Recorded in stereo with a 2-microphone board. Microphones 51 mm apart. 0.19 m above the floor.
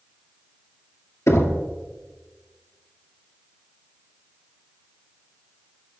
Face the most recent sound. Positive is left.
turn(degrees=65)  # may be behind; listen again after turning